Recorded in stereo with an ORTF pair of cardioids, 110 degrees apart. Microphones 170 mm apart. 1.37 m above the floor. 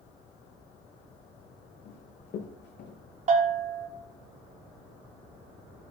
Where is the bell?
45° right, 3.5 m.